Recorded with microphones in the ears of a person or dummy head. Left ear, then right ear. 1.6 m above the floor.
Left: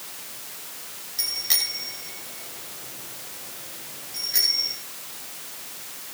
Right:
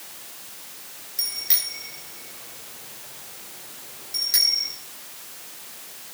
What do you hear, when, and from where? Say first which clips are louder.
1.2 s a bicycle bell: left 3 dB; centre (ahead or behind), 6 m; by 4.7 s 40° right (ahead or behind), 8 m